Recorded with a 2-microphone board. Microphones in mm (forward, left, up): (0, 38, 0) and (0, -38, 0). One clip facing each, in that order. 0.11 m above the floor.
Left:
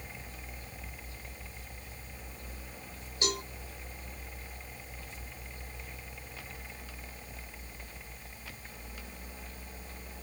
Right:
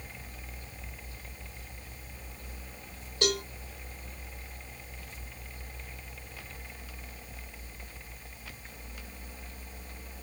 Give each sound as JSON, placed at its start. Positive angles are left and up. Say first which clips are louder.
{"t": 3.2, "sound": "a cowbell", "louder": "right 5 dB", "side_deg": -75, "distance_m": 1.6}